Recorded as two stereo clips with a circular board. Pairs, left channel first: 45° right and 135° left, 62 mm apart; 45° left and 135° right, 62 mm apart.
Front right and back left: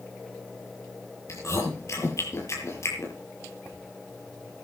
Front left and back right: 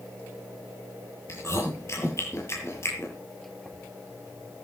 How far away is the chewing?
About 8.5 m.